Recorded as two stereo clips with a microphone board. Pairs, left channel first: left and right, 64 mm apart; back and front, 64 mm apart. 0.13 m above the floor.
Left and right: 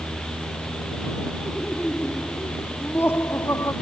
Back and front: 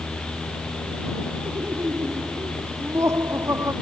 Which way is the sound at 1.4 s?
25° left.